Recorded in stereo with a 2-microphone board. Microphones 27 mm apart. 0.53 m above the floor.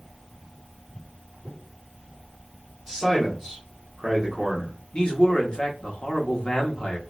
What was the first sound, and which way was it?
A man speaking, 15° right (ahead or behind).